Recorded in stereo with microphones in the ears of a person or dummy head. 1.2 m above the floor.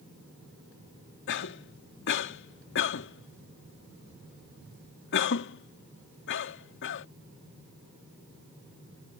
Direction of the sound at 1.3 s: 60° left (ahead or behind).